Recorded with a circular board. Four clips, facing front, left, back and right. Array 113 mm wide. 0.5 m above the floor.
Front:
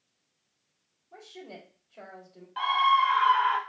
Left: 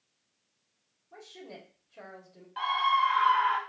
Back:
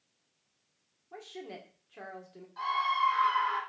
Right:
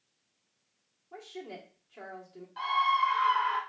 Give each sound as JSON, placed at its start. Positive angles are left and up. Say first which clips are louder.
{"t": 1.1, "sound": "a woman speaking", "louder": "right 4 dB, back 1 dB", "azimuth_deg": -150, "distance_m": 1.6}
{"t": 2.6, "sound": "a scream", "louder": "left 1 dB, front 7 dB", "azimuth_deg": 30, "distance_m": 1.1}